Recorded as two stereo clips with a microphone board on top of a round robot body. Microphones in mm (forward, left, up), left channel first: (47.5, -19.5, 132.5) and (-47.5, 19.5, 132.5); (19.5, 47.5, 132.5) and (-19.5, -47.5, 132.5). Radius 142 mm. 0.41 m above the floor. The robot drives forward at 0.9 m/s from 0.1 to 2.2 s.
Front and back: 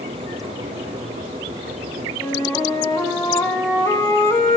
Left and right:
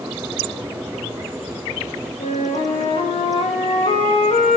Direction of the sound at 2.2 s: 45° left.